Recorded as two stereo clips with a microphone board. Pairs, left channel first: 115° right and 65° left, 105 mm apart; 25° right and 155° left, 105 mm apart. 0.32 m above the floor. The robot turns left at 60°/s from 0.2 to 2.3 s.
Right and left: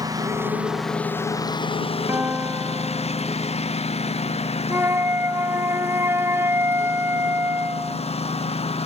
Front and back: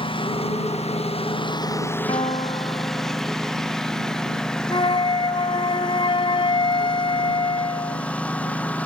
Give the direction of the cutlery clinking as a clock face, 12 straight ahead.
No cutlery clinking in this recording.